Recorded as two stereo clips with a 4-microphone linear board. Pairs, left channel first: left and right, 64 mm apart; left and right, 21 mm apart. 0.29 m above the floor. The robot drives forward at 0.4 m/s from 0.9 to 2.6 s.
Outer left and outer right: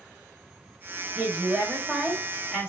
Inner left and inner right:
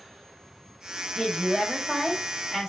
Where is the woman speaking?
20° right (ahead or behind), 1.3 m.